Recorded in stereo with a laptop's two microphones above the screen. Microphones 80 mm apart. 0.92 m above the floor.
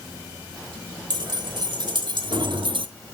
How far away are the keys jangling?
About 2.5 m.